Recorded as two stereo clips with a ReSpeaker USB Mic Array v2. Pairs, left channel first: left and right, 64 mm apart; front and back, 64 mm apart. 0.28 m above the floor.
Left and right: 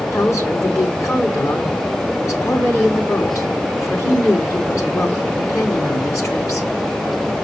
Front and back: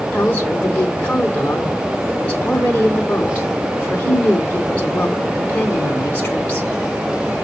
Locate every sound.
0.1 s a woman speaking: 60° left, 3 m